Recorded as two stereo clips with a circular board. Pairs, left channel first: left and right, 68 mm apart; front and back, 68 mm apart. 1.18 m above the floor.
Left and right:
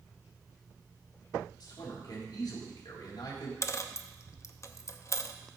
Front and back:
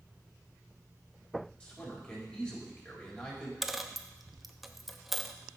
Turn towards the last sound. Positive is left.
turn(degrees=95)